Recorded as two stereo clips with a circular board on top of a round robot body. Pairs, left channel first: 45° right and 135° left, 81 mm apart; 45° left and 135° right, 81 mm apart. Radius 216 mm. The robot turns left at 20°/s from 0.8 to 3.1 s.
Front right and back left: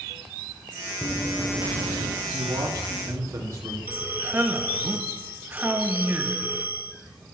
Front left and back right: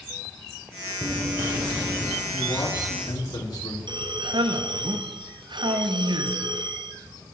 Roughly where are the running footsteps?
Right.